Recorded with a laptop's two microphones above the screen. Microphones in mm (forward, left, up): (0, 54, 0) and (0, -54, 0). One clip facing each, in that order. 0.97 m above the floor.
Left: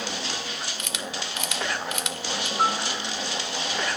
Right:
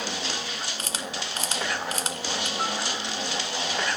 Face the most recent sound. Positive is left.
turn(degrees=40)  # may be behind; listen again after turning